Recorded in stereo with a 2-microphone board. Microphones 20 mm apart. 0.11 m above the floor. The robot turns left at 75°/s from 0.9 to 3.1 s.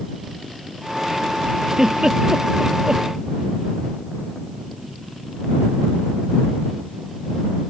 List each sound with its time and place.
1.7 s a giggle: 25° right (ahead or behind); by 3.1 s 45° right (ahead or behind)